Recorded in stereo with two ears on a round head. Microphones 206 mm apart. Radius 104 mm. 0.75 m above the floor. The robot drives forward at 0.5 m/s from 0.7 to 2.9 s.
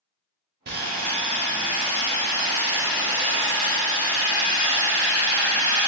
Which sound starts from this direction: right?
Sawing, at 0.7 s.